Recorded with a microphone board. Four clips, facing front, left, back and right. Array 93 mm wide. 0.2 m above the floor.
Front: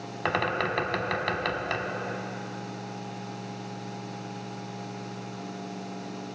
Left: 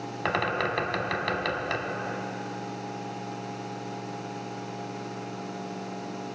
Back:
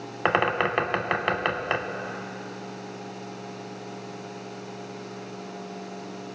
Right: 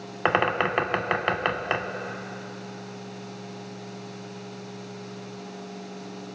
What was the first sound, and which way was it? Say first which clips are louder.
A bird: right 5 dB, back 4 dB; 130° right.